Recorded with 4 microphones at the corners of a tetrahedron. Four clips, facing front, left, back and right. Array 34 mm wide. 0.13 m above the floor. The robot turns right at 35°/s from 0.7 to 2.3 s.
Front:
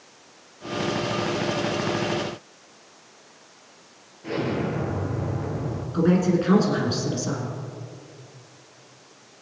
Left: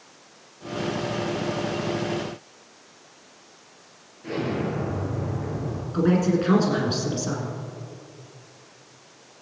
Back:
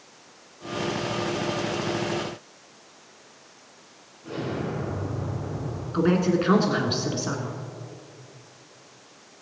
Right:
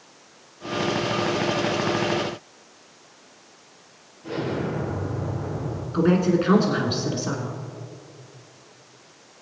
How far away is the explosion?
About 2.5 m.